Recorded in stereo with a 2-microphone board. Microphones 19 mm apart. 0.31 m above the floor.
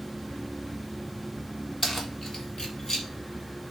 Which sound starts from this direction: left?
Keys jangling, at 1.8 s.